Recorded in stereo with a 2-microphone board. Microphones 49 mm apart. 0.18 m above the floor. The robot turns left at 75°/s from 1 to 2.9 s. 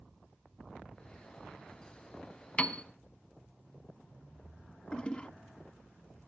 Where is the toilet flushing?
25° left (ahead or behind), 0.6 m.